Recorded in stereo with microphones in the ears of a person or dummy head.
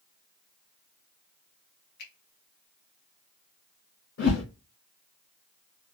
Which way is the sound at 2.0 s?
55° left (ahead or behind).